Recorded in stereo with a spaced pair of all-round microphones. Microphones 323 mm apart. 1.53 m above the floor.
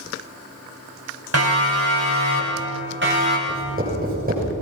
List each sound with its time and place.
1.3 s a siren: 50° right (ahead or behind), 7 m; by 3.4 s 35° right (ahead or behind), 5.5 m
3.5 s writing: 25° right (ahead or behind), 7 m